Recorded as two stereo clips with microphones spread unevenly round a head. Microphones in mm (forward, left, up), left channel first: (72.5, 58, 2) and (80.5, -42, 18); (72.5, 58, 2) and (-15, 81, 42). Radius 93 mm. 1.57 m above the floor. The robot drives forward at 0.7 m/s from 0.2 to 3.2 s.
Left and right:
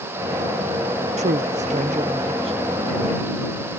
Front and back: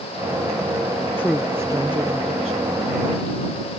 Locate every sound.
1.2 s a woman speaking: 100° right; by 2.8 s 150° right